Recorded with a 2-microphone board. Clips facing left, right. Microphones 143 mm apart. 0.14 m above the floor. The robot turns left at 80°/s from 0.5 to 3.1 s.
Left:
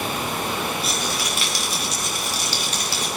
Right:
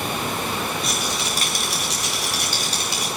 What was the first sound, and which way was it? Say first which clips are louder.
A rattle: even; 5° left.